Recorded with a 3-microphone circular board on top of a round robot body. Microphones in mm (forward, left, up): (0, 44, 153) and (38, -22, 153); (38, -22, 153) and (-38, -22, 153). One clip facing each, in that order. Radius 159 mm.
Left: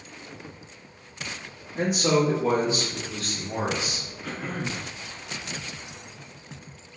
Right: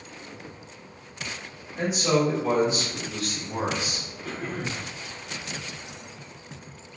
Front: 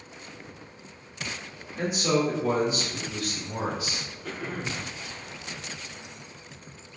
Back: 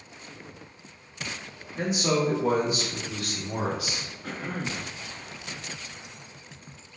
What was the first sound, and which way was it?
A man speaking, 140° left.